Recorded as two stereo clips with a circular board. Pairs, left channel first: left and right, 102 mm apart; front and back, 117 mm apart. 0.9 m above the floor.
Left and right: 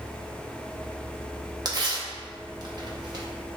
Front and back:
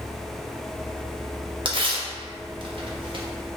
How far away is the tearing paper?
About 0.7 m.